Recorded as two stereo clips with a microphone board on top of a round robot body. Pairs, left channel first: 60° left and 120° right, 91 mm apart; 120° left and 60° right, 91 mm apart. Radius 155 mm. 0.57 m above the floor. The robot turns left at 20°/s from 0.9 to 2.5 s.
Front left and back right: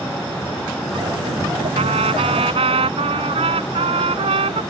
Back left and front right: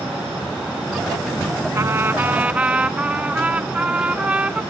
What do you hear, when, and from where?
1.8 s a trumpet: 120° right; by 4.6 s 135° right